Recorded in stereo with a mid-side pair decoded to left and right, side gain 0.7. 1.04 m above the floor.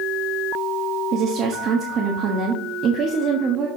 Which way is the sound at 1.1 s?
40° right.